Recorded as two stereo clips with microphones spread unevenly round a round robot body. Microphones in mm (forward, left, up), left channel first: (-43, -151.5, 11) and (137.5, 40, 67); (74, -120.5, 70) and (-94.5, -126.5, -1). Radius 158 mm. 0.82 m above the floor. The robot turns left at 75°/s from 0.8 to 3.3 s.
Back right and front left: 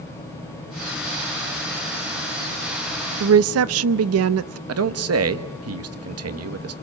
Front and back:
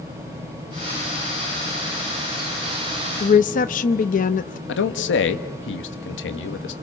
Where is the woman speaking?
65° left, 0.6 m; by 4.6 s 55° left, 0.6 m.